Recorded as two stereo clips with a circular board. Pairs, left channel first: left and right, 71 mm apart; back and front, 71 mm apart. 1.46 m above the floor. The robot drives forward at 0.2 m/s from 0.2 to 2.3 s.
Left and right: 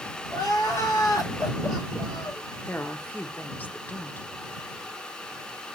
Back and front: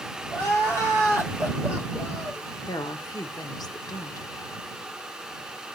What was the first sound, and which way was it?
Crying, 125° left.